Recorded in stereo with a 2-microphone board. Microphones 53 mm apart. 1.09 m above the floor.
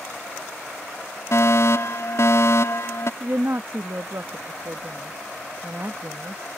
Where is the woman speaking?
55° right (ahead or behind).